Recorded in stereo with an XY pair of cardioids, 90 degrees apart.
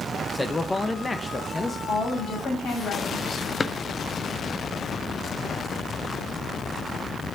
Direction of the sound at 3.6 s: 30° left.